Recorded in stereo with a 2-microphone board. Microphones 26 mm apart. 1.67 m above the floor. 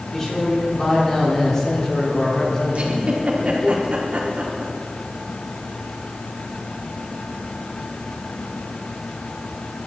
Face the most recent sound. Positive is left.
turn(degrees=-50)  # may be behind; listen again after turning